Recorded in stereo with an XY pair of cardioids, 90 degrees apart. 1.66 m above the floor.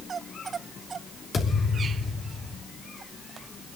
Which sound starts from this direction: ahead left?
A thud, at 1.3 s.